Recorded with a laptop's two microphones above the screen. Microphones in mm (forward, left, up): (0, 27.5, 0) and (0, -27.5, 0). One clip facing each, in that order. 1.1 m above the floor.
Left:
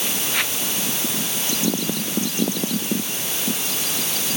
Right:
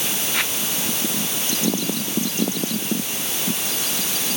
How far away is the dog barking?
No dog barking in this recording.